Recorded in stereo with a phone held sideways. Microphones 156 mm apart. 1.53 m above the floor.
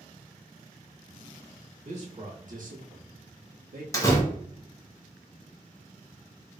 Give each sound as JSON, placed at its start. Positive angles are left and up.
{"t": 1.8, "sound": "a man speaking", "side_deg": -50, "distance_m": 1.4}
{"t": 3.9, "sound": "a door slam", "side_deg": 20, "distance_m": 0.9}